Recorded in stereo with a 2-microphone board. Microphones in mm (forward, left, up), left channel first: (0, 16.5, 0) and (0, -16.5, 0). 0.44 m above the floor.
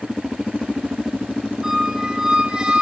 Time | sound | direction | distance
1.6 | a squeak | 15° right (ahead or behind) | 4.5 m